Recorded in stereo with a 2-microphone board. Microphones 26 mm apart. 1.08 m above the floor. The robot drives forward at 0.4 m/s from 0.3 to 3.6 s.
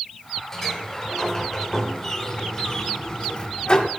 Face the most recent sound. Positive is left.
turn(degrees=40)  # may be behind; listen again after turning